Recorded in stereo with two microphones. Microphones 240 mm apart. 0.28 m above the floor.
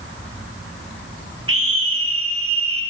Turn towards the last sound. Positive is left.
turn(degrees=-65)  # may be behind; listen again after turning